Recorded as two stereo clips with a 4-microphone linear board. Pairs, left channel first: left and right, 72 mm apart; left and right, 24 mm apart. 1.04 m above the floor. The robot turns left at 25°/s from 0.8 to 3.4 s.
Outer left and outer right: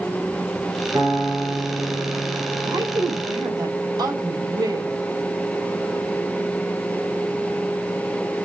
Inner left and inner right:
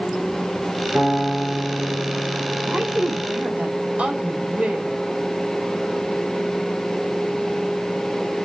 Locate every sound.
0.9 s a piano: 60° right, 3 m; by 3.2 s 120° right, 3 m
2.6 s a woman speaking: 85° right, 4 m; by 4.9 s 70° right (ahead or behind), 4 m